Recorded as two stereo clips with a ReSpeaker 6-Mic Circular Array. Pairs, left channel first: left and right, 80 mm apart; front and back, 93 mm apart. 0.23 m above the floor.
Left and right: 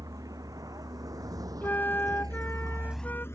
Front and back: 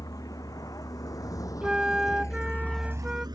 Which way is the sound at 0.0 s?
45° right.